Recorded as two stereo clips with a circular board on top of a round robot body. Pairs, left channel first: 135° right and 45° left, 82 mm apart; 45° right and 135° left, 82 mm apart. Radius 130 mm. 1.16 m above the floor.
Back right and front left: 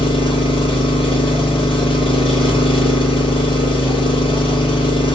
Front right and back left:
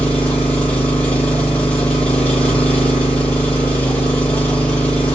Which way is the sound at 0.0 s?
120° right.